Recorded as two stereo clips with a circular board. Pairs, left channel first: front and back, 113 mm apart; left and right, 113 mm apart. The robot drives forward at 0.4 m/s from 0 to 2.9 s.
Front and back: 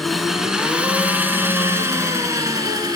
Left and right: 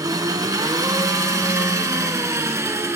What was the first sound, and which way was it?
An engine running, 85° right.